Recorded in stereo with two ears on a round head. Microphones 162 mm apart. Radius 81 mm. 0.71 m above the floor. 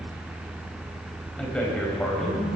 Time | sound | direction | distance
1.4 | a man speaking | 5° left (ahead or behind) | 4 m